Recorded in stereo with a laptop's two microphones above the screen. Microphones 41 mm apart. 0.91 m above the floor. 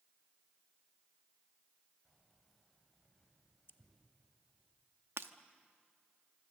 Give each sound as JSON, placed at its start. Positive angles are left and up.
{"t": 2.0, "sound": "keys jangling", "side_deg": 5, "distance_m": 4.0}
{"t": 3.7, "sound": "scissors", "side_deg": 70, "distance_m": 1.0}
{"t": 5.2, "sound": "breaking glass", "side_deg": -75, "distance_m": 0.9}